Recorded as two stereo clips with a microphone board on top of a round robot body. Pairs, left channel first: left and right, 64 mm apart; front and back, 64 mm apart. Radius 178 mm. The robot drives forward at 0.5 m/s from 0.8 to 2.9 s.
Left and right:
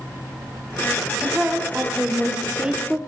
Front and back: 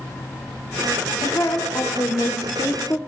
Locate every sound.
1.2 s a woman speaking: 10° right, 2.0 m; by 3.0 s 25° right, 1.3 m